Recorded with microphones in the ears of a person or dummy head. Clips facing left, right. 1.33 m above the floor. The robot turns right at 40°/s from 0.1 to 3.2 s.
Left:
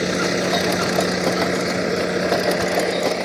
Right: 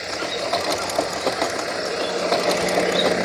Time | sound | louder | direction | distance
0.0 | a vehicle | left 7 dB | 75° left | ?